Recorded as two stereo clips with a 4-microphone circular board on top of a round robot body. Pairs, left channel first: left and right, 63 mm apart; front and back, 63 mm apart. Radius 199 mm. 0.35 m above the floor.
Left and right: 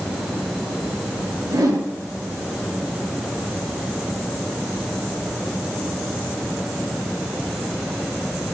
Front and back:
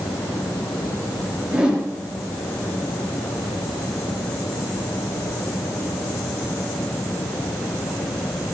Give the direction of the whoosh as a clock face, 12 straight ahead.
4 o'clock.